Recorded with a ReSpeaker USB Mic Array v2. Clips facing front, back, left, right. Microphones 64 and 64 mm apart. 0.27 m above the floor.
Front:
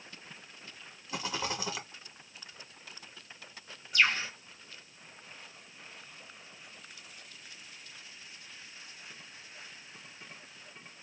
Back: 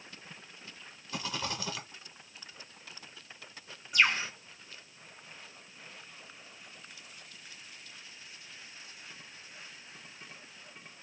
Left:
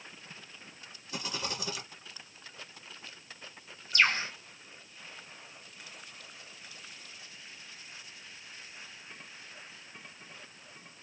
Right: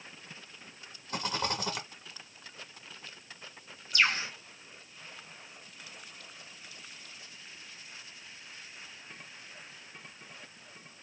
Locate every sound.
1.1 s a rattle: 65° right, 1.5 m
3.9 s a bird: 110° left, 1.8 m